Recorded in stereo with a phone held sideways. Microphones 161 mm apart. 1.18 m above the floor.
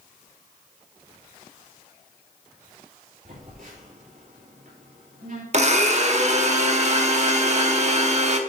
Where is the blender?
45° right (ahead or behind), 0.9 m.